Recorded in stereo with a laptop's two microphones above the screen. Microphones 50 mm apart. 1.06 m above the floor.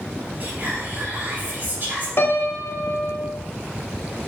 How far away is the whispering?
About 2.5 m.